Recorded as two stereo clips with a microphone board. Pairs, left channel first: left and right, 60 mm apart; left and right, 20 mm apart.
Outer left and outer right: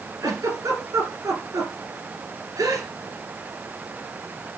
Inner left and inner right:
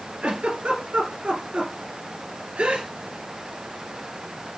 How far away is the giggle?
About 2.5 m.